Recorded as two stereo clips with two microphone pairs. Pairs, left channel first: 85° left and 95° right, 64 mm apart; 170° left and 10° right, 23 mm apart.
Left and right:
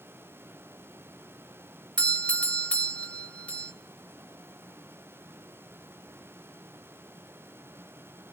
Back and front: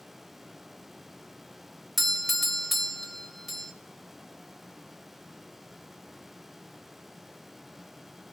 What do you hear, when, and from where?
2.0 s a doorbell: 80° left, 1.1 m